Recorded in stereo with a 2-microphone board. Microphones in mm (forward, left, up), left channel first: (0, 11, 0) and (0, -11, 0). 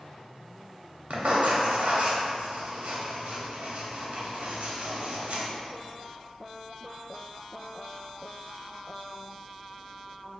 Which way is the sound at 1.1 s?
70° right (ahead or behind).